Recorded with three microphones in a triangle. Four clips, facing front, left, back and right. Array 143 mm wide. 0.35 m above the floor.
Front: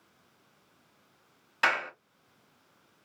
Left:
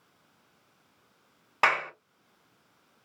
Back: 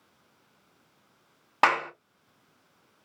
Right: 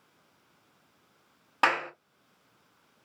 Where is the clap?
170° left, 2.5 m.